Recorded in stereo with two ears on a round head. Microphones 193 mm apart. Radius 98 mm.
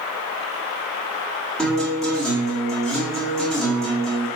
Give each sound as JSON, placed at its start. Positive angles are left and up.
{"t": 1.6, "sound": "a guitar", "side_deg": 5, "distance_m": 1.3}